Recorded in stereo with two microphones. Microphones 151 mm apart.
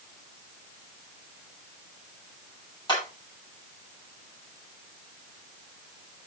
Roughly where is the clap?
Left.